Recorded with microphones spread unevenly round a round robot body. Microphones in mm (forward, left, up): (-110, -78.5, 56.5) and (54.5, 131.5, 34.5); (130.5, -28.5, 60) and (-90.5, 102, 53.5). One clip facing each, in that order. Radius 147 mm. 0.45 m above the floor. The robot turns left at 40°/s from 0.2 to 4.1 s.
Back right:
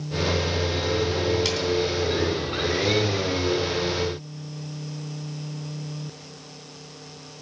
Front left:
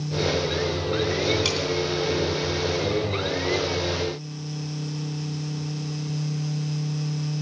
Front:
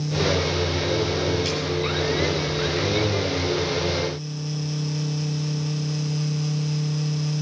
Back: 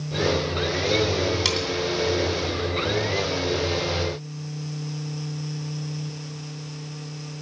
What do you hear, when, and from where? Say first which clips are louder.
1.4 s cutlery clinking: back right 1 dB, front 1 dB; 140° left, 3 m; by 1.7 s 130° left, 3 m